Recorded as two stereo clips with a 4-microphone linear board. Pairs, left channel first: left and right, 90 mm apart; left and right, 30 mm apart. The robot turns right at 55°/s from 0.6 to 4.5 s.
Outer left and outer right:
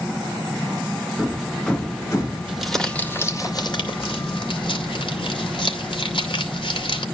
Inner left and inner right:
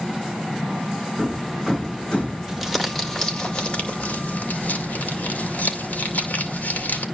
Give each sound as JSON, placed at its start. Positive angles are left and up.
{"t": 1.2, "sound": "hammering", "azimuth_deg": -20, "distance_m": 4.0}
{"t": 2.5, "sound": "crumpling", "azimuth_deg": -10, "distance_m": 2.5}